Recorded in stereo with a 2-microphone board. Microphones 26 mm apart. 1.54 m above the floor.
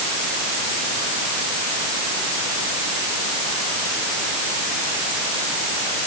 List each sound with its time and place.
Only background noise.